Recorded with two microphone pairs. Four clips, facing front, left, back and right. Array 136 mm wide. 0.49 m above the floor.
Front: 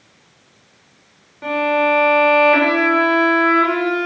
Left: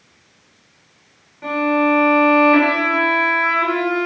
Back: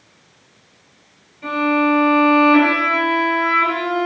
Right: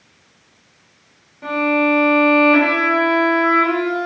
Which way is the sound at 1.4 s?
10° left.